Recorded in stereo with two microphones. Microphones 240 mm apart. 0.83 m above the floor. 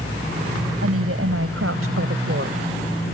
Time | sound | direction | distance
0.8 | a woman speaking | 75° right (ahead or behind) | ?